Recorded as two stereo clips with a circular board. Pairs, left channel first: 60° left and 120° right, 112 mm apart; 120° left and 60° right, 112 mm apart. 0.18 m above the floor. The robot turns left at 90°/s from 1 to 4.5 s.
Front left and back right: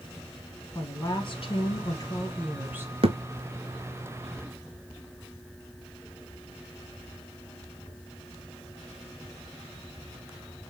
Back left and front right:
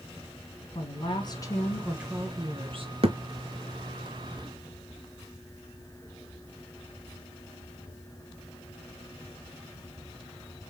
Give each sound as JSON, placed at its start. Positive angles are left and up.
{"t": 0.8, "sound": "a woman speaking", "azimuth_deg": 105, "distance_m": 1.7}
{"t": 3.0, "sound": "a thud", "azimuth_deg": -90, "distance_m": 0.6}